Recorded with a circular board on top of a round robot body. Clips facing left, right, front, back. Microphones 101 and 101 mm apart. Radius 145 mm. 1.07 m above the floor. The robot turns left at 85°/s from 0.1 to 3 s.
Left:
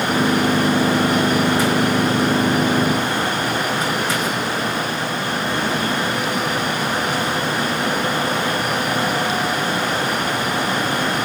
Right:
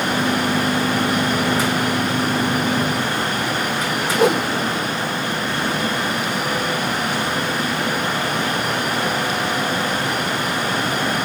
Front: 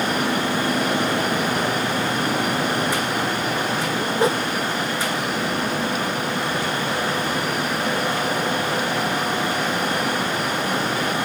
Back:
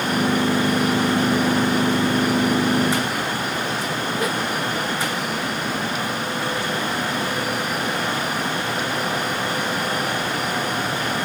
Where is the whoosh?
60° right.